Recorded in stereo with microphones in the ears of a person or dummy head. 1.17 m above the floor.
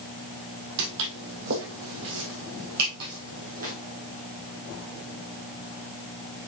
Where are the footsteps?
60° right (ahead or behind), 2.5 m; by 3.7 s 45° right (ahead or behind), 3 m.